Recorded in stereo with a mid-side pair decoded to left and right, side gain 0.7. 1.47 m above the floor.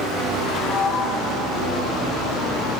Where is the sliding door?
20° left, 5 m.